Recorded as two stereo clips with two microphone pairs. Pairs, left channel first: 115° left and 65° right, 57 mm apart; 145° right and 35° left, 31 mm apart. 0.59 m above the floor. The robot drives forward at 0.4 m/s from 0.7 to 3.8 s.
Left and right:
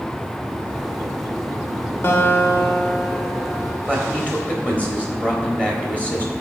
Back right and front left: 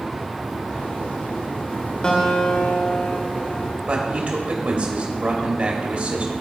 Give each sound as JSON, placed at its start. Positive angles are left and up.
{"t": 2.0, "sound": "a guitar", "azimuth_deg": 150, "distance_m": 1.1}
{"t": 3.9, "sound": "a man speaking", "azimuth_deg": 50, "distance_m": 1.4}